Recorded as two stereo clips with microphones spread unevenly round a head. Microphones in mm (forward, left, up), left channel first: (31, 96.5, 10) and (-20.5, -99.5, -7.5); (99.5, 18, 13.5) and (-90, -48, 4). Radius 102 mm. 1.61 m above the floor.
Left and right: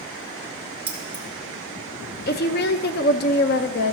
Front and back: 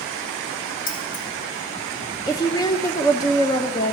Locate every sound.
0.9 s keys jangling: 25° right, 1.6 m
2.3 s a woman speaking: 85° left, 0.5 m